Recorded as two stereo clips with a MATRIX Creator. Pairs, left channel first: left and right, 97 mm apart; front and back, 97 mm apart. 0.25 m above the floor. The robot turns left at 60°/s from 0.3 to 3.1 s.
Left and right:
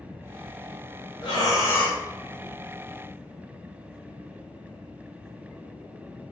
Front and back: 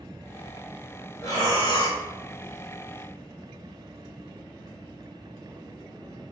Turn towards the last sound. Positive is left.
turn(degrees=-55)